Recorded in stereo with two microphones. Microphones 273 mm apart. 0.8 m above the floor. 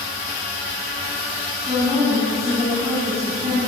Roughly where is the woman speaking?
Right.